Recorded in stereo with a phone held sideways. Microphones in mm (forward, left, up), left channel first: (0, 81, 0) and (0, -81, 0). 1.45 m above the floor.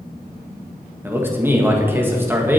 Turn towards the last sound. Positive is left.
turn(degrees=-15)  # may be behind; listen again after turning